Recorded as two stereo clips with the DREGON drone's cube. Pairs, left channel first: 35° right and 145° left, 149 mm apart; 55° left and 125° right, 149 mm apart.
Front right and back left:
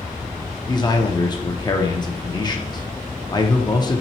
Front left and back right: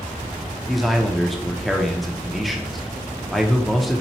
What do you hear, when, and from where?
0.7 s a man speaking: 35° right, 0.6 m